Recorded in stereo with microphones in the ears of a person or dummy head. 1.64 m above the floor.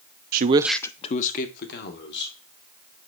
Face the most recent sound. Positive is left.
turn(degrees=65)  # may be behind; listen again after turning